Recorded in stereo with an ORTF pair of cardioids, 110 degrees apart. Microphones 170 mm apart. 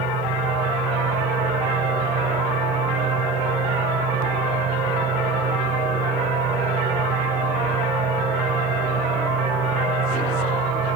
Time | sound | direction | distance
0.0 | a fan | 55° right | ?